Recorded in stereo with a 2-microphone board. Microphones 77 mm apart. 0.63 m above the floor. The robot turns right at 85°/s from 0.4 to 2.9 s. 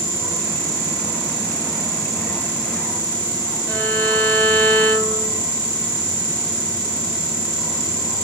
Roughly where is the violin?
Left.